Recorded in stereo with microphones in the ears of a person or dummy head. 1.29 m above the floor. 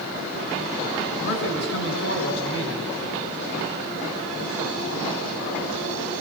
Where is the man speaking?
75° left (ahead or behind), 6 m.